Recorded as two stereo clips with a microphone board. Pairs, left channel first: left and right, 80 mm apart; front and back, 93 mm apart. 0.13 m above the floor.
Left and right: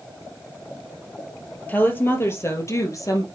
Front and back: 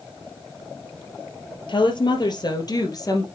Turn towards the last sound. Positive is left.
turn(degrees=50)